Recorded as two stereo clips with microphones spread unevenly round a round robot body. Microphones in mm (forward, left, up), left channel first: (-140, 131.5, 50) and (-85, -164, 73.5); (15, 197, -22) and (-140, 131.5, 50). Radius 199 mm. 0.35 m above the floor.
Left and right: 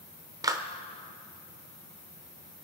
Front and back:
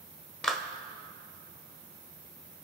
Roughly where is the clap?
Ahead.